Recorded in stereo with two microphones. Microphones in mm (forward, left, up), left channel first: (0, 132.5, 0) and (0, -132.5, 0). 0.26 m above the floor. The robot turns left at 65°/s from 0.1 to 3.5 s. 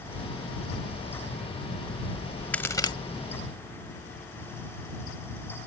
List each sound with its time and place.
2.5 s a crack: 5° left (ahead or behind); by 2.9 s 20° left (ahead or behind)